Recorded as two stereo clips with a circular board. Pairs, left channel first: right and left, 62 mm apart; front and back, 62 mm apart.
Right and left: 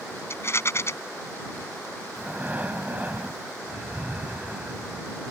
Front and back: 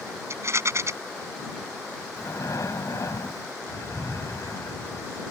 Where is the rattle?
135° right.